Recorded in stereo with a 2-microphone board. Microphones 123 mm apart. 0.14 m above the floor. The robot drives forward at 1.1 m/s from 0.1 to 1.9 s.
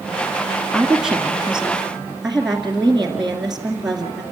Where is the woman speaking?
5° right (ahead or behind), 1.3 m; by 4.2 s centre (ahead or behind), 2 m.